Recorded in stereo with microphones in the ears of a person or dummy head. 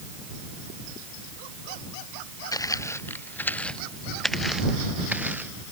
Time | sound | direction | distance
2.5 | footsteps | 20° left (ahead or behind) | ?